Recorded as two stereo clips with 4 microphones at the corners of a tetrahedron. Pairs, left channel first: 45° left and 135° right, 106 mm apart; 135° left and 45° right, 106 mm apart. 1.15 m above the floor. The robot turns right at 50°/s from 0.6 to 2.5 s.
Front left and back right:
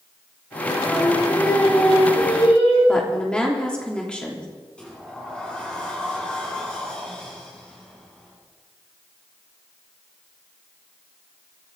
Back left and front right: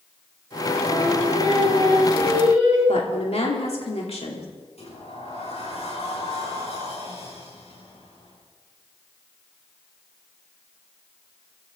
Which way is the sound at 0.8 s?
50° right.